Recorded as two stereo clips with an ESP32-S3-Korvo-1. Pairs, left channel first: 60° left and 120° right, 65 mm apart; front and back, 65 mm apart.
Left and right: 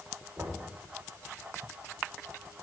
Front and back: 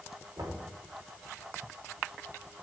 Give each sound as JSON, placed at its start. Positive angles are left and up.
{"t": 0.4, "sound": "knocking", "azimuth_deg": -175, "distance_m": 5.5}